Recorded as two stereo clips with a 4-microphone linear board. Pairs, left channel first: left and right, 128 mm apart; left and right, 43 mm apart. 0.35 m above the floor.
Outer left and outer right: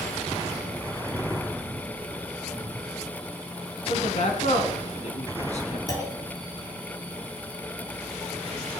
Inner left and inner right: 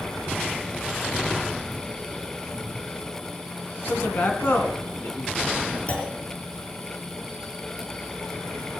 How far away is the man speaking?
About 3 m.